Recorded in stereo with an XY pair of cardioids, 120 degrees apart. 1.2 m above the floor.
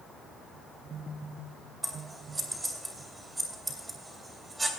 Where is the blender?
No blender in this recording.